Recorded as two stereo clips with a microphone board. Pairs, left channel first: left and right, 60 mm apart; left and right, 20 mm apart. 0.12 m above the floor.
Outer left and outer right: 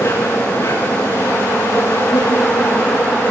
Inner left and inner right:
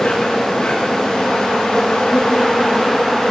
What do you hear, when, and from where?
0.0 s an insect: 45° left (ahead or behind), 8.5 m